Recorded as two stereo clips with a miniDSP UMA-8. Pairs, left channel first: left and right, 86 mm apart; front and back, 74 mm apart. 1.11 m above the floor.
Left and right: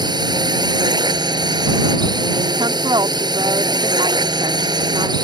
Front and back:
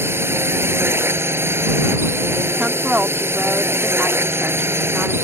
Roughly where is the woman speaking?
Right.